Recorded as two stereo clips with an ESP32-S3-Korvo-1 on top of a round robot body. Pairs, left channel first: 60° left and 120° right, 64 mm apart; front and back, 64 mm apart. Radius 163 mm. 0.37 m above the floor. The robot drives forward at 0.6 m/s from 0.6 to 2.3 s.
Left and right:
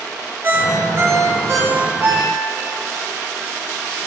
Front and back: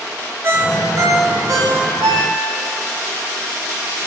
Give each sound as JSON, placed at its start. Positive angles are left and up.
{"t": 0.4, "sound": "a ringtone", "azimuth_deg": -150, "distance_m": 1.1}